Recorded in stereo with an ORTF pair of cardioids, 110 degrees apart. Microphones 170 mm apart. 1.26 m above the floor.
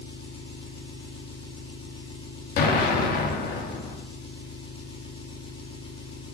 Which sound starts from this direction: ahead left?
An engine running, at 0.0 s.